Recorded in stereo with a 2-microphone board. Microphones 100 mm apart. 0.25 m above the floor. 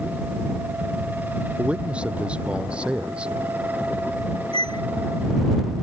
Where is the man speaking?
10° right (ahead or behind).